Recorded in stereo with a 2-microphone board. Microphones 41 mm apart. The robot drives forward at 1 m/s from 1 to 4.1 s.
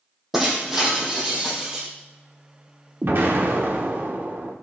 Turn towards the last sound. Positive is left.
turn(degrees=-55)  # may be behind; listen again after turning